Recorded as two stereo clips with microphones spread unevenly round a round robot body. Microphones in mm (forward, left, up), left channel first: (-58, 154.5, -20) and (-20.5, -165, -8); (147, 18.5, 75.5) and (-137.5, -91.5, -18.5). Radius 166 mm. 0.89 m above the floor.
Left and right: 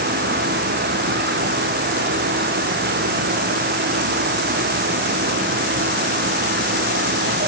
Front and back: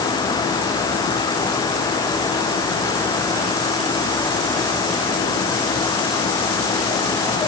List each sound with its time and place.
Only background noise.